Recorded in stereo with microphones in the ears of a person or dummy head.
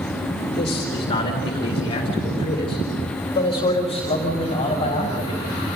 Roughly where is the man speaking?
Left.